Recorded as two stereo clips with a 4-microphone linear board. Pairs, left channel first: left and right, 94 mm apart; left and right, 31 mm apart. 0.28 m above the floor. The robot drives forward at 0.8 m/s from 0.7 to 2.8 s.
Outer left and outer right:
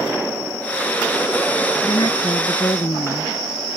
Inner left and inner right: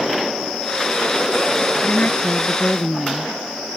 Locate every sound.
1.8 s a woman speaking: 65° left (ahead or behind); by 3.4 s 55° left (ahead or behind)